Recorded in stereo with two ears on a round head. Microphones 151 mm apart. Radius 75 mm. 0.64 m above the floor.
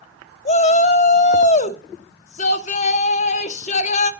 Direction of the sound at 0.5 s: 40° left (ahead or behind).